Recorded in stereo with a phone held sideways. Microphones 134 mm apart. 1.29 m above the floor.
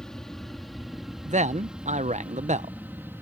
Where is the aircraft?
5° left (ahead or behind); by 3.2 s 15° right (ahead or behind).